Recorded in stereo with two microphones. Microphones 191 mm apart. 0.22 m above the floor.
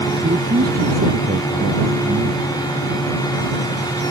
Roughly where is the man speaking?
Right.